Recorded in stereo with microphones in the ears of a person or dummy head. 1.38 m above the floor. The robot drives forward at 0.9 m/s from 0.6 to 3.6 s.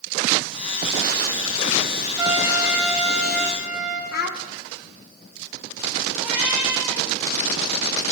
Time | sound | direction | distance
2.2 | a trumpet | 15° right (ahead or behind) | 0.7 m
4.1 | a child speaking | 60° left (ahead or behind) | 1.0 m
6.2 | a cat meowing | 75° left (ahead or behind) | 4 m